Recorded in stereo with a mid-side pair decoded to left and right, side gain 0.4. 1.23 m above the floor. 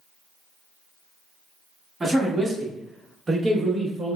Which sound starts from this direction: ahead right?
A man speaking, at 2.0 s.